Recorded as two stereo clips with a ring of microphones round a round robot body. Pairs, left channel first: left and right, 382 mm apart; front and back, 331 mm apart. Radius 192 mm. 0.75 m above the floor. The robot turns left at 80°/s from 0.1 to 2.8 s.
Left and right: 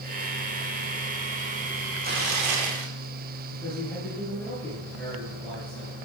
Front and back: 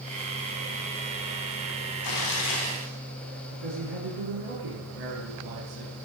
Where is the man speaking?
Straight behind, 9.5 m.